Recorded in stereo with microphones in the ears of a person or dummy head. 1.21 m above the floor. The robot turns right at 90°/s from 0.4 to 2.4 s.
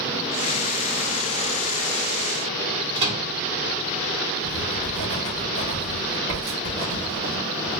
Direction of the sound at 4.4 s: 75° right (ahead or behind).